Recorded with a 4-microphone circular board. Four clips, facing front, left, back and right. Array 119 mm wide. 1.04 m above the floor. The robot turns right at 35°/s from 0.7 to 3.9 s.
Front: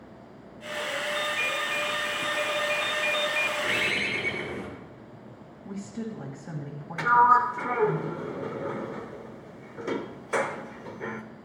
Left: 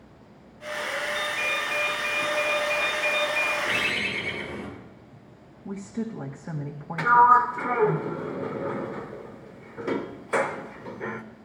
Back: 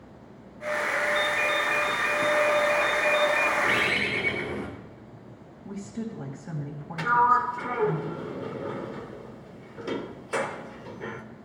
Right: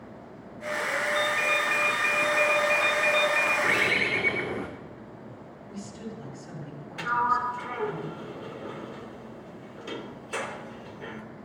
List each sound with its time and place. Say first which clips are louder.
1.1 s a ringtone: right 3 dB, back 4 dB; 125° right, 2.5 m; by 3.5 s 45° right, 2.5 m
3.6 s a bird: right 3 dB, back 3 dB; 110° right, 2.0 m; by 4.7 s 100° right, 2.0 m
5.7 s a woman speaking: left 8 dB, even; 90° left, 1.6 m
7.0 s a sliding door: left 9 dB, front 2 dB; 70° left, 0.8 m